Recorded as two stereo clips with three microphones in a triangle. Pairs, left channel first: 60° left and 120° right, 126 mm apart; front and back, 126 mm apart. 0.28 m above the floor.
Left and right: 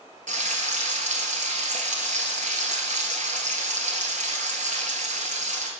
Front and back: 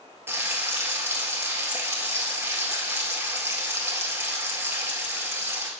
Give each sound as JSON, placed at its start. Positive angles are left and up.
{"t": 0.3, "sound": "frying", "azimuth_deg": -110, "distance_m": 1.2}